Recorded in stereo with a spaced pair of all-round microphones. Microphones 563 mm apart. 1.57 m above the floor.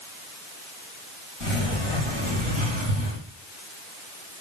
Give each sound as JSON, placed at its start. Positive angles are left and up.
{"t": 1.4, "sound": "a sliding door", "side_deg": 60, "distance_m": 2.5}